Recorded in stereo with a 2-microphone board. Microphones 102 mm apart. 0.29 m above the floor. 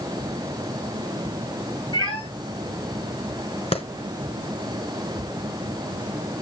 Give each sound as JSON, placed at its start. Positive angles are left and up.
{"t": 1.9, "sound": "a cat meowing", "side_deg": 45, "distance_m": 8.0}
{"t": 3.7, "sound": "a clap", "side_deg": 75, "distance_m": 2.5}